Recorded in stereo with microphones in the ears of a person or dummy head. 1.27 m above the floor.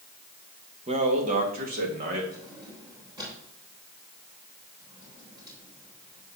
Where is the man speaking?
35° right (ahead or behind), 1.3 m; by 2.2 s 50° right (ahead or behind), 2 m.